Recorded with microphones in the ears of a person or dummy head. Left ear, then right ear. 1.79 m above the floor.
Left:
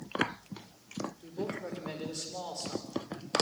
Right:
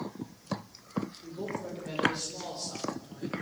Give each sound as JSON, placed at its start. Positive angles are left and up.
{"t": 1.2, "sound": "a man speaking", "side_deg": 45, "distance_m": 5.5}